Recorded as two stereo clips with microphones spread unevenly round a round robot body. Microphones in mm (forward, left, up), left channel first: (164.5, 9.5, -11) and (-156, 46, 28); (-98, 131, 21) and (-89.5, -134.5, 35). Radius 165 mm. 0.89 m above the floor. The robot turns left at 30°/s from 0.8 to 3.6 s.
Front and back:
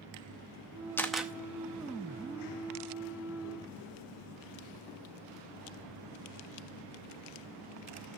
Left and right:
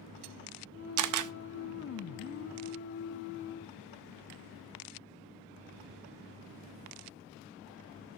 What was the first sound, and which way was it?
A camera shutter, 90° right.